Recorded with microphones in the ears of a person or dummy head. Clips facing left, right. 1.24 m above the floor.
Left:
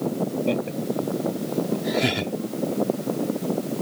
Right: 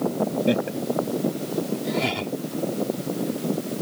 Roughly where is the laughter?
Centre.